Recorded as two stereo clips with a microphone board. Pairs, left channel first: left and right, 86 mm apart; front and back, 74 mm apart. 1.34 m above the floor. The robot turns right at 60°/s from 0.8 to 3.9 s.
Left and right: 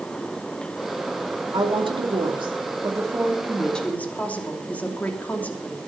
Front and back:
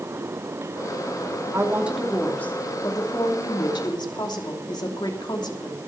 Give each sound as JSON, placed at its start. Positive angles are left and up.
{"t": 1.5, "sound": "a woman speaking", "azimuth_deg": -125, "distance_m": 2.5}